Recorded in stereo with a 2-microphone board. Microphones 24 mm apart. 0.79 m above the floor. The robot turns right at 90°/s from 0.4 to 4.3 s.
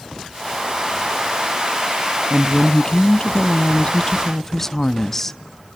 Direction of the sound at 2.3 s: 20° right.